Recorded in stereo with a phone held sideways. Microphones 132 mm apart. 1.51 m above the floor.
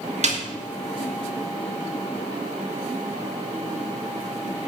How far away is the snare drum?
About 2.5 m.